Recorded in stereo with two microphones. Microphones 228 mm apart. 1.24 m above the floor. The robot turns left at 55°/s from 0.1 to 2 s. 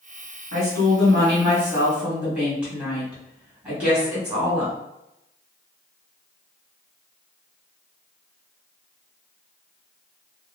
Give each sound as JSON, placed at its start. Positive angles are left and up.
{"t": 0.5, "sound": "a woman speaking", "azimuth_deg": -85, "distance_m": 1.7}